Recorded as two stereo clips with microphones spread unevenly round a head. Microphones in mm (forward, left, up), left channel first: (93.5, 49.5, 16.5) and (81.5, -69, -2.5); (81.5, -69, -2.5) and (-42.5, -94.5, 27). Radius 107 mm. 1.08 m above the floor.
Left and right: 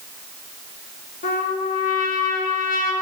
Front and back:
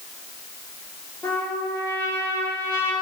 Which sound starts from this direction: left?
A trumpet, at 1.2 s.